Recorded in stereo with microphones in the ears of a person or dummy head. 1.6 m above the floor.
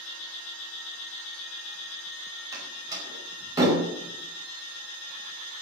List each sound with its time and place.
2.5 s a door slam: 15° right (ahead or behind), 4.5 m